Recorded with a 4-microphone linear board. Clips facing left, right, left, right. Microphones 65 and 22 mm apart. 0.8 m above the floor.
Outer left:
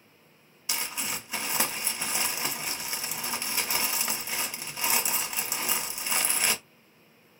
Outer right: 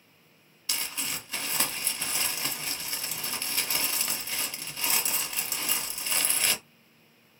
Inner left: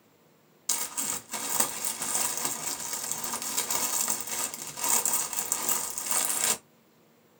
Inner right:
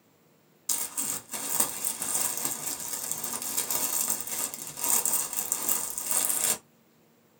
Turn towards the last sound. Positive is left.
turn(degrees=15)  # may be behind; listen again after turning